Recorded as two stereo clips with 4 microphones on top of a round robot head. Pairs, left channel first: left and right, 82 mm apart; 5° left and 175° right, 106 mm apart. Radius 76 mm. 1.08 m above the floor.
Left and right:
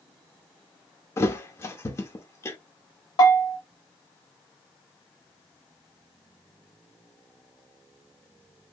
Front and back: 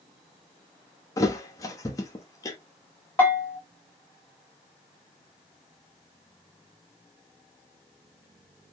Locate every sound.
1.2 s a thud: 50° left, 0.5 m
3.2 s a bell: 75° left, 0.9 m